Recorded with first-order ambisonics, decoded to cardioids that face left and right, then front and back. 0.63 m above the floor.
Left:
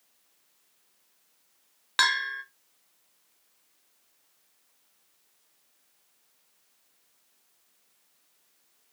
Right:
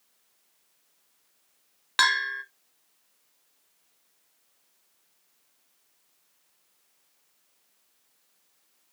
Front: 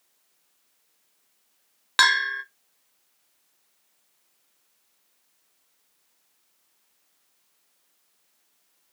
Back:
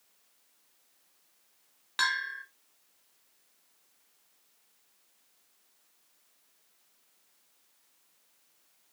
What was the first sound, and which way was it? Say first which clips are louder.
A bell: right 2 dB, front 10 dB; 10° right.